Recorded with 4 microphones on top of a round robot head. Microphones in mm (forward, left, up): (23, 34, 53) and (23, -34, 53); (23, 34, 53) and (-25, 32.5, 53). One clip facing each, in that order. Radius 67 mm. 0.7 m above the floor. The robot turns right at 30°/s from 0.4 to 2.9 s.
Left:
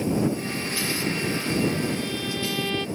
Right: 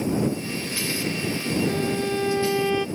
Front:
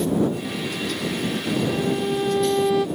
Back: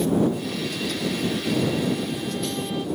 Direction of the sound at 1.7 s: 50° right.